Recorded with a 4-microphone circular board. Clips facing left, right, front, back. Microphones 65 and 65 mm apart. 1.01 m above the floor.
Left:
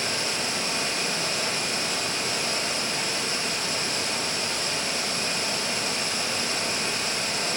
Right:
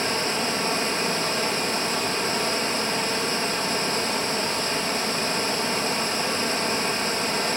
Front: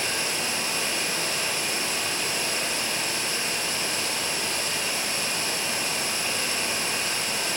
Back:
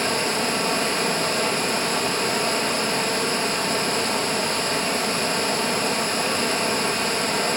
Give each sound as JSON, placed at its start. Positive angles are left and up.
{"t": 0.0, "sound": "running water", "azimuth_deg": -145, "distance_m": 5.0}